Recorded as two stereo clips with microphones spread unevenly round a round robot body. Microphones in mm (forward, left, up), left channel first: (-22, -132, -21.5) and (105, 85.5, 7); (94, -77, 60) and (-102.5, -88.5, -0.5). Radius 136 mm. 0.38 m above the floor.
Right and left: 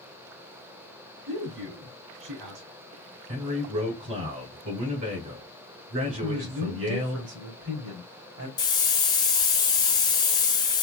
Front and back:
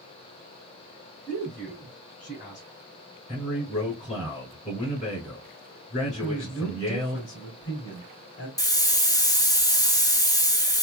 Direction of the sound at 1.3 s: 70° left.